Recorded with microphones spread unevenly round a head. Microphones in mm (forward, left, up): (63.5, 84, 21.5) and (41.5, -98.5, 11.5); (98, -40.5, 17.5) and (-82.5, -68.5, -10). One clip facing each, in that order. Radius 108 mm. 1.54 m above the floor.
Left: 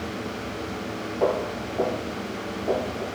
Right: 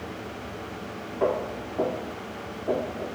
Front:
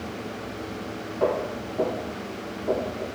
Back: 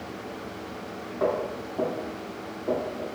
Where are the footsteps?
45° left, 1.9 m; by 3.1 s 65° left, 1.5 m.